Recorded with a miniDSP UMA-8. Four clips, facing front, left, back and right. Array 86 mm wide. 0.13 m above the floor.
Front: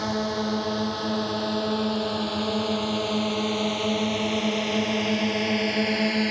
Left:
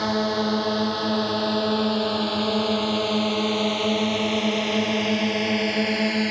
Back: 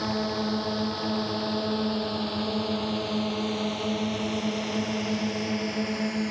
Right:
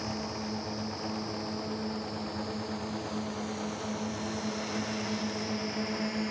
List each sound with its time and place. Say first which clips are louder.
0.0 s a drone: left 13 dB, front 2 dB; 75° left; by 6.3 s 50° left